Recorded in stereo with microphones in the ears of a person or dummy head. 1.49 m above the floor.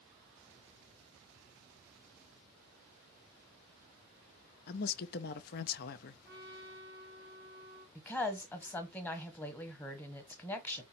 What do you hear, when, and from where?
4.7 s a woman speaking: 50° left (ahead or behind), 0.6 m
6.2 s a trumpet: 20° right (ahead or behind), 3.5 m
8.0 s a woman speaking: 10° left (ahead or behind), 1.0 m